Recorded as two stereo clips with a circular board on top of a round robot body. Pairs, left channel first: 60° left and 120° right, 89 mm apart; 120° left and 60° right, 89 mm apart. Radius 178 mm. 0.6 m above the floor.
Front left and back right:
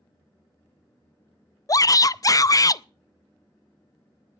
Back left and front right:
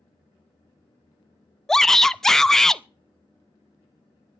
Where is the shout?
35° left, 0.7 m.